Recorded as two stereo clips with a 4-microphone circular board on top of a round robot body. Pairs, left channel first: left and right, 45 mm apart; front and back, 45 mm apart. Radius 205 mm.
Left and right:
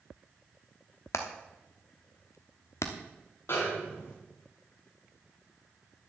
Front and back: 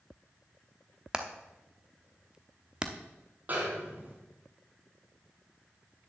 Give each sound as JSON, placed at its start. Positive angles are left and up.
{"t": 1.1, "sound": "hammering", "azimuth_deg": 110, "distance_m": 0.9}
{"t": 3.5, "sound": "a snare drum", "azimuth_deg": 130, "distance_m": 2.5}